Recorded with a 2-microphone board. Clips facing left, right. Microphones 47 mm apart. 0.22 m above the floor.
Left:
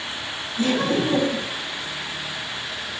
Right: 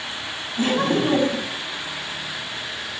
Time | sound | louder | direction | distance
0.6 | laughter | right 1 dB | 40° right (ahead or behind) | 2.0 m